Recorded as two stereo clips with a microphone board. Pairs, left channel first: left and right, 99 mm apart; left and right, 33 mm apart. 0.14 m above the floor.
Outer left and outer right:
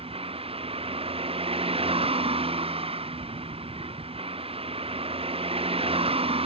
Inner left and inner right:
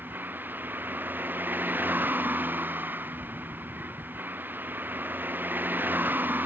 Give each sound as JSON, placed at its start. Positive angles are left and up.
{"t": 0.0, "sound": "a vehicle", "side_deg": -75}